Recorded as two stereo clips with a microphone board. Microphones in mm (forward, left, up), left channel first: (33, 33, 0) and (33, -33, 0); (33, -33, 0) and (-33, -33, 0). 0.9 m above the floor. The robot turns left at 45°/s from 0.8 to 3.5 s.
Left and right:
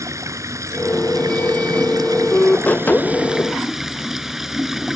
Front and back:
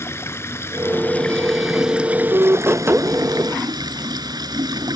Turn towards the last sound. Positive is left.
turn(degrees=-175)